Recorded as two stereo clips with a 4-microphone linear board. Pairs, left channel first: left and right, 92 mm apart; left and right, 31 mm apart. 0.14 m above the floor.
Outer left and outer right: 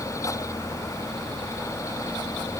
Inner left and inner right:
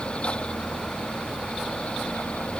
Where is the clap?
No clap in this recording.